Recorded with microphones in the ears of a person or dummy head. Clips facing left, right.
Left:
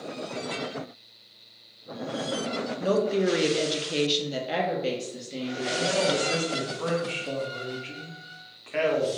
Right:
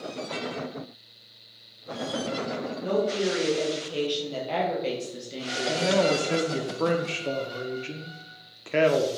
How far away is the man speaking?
About 0.7 m.